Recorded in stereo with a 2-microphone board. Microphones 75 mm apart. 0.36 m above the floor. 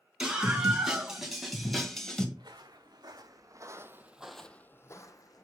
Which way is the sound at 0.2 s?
10° right (ahead or behind).